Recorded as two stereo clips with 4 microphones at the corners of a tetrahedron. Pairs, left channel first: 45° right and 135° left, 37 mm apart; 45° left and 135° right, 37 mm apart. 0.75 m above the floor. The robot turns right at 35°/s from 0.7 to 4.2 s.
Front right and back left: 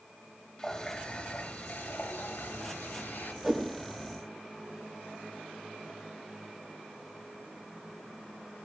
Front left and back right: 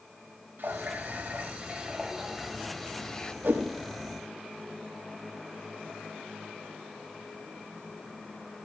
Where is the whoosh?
135° right, 6 m; by 3.6 s 130° right, 6 m.